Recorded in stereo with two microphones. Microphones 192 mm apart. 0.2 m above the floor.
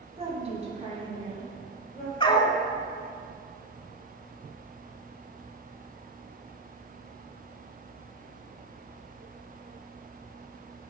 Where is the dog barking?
25° left (ahead or behind), 0.6 m.